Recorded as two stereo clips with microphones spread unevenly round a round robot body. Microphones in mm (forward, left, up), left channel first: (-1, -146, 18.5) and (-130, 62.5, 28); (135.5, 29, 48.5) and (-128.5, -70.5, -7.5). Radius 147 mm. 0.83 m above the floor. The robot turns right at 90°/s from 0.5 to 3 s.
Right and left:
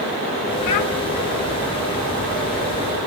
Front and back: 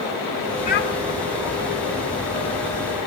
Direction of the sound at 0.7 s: 45° right.